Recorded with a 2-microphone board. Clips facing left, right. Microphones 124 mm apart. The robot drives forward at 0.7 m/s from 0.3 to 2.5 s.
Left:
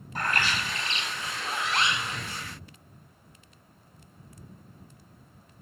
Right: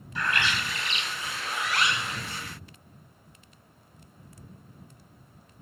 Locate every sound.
0.1 s a bird: 45° left (ahead or behind), 1.6 m; by 2.2 s 25° left (ahead or behind), 2.5 m